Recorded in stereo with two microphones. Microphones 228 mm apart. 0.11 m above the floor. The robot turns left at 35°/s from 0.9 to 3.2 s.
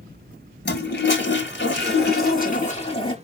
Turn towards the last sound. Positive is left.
turn(degrees=25)